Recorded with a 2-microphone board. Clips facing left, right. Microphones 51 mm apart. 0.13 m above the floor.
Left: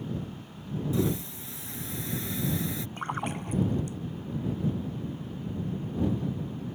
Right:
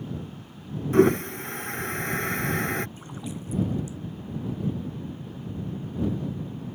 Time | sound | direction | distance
0.9 | a toilet flushing | 50° right (ahead or behind) | ?
3.0 | a splash | 50° left (ahead or behind) | ?